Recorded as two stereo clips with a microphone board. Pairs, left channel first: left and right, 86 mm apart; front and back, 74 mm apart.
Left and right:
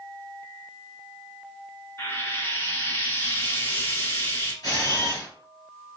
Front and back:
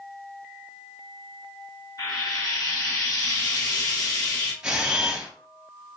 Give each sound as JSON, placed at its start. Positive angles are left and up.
{"t": 2.0, "sound": "frying", "azimuth_deg": 25, "distance_m": 2.0}
{"t": 4.6, "sound": "a camera shutter", "azimuth_deg": 105, "distance_m": 2.0}